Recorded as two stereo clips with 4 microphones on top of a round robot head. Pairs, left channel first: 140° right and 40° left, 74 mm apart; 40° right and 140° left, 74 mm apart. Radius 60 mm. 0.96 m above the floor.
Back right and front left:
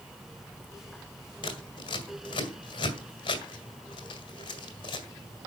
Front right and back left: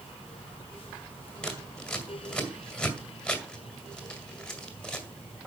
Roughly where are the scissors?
Behind right.